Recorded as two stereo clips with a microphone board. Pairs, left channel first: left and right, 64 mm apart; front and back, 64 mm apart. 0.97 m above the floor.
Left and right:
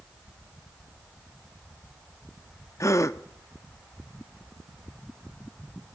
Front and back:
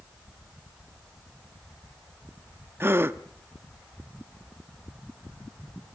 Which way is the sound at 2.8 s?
125° left.